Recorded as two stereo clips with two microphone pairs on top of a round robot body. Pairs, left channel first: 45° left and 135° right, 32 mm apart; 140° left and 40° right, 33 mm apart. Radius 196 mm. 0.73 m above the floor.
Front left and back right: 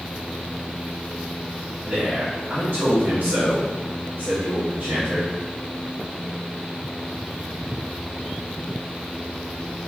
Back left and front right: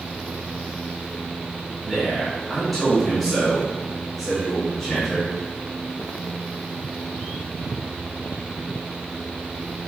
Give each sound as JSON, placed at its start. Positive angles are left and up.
{"t": 1.8, "sound": "a man speaking", "azimuth_deg": -125, "distance_m": 1.2}